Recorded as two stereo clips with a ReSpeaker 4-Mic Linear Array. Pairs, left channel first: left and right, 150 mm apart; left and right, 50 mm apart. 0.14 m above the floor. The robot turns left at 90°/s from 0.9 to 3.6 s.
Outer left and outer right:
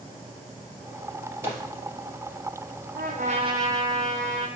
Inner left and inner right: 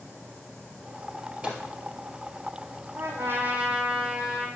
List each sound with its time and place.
1.4 s a microwave: 20° right (ahead or behind), 3 m; by 1.6 s 5° right (ahead or behind), 3 m
3.0 s a trumpet: 100° right, 1.4 m; by 4.5 s 160° right, 1.4 m